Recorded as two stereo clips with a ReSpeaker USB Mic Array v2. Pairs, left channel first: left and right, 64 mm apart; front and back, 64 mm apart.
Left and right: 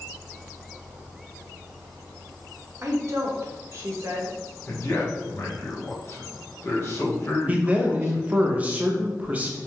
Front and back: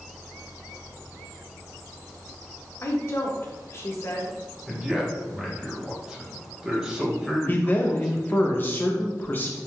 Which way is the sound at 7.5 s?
35° right.